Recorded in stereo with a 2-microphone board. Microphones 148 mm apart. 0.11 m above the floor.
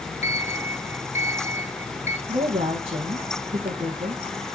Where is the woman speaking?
45° right (ahead or behind), 2.5 m.